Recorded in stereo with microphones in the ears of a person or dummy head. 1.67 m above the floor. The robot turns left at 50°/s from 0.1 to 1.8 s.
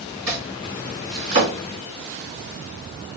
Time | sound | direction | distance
0.3 | chopping | 5° left (ahead or behind) | 2.5 m